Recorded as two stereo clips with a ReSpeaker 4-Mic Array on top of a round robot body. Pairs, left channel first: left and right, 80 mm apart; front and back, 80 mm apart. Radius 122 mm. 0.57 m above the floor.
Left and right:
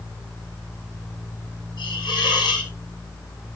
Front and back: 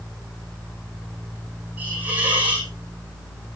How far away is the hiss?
About 10 m.